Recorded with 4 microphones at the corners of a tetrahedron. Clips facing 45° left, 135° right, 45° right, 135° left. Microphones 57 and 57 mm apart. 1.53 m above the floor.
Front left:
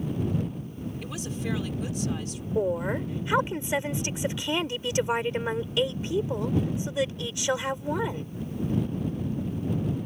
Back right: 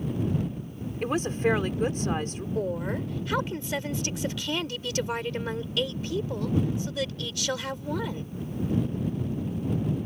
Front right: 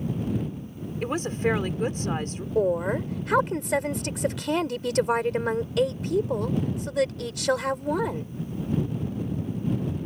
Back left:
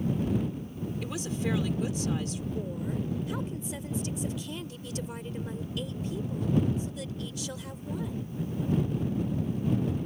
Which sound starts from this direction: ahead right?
A woman speaking, at 2.5 s.